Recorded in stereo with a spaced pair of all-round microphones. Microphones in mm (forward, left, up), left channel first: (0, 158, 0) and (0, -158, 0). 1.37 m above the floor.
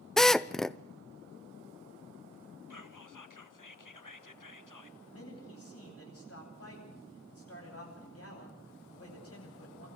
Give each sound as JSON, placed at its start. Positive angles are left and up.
{"t": 0.2, "sound": "a drill", "side_deg": 0, "distance_m": 0.5}
{"t": 2.7, "sound": "whispering", "side_deg": 70, "distance_m": 1.4}
{"t": 5.1, "sound": "a man speaking", "side_deg": 45, "distance_m": 10.0}